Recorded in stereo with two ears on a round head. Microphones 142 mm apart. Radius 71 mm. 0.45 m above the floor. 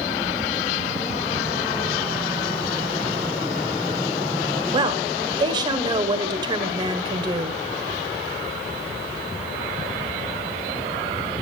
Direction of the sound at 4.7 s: 30° right (ahead or behind).